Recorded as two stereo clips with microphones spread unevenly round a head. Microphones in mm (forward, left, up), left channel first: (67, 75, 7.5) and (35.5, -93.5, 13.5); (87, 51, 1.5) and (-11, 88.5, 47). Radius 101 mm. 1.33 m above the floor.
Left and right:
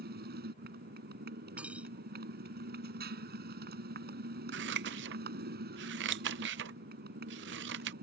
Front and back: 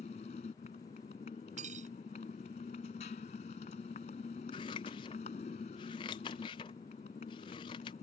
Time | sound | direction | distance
0.0 | a motorcycle | 75° right | ?
1.6 | cutlery clinking | 175° left | ?
4.5 | scissors | 90° right | ?